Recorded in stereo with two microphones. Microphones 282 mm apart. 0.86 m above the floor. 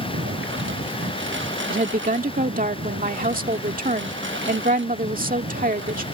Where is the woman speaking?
30° right (ahead or behind).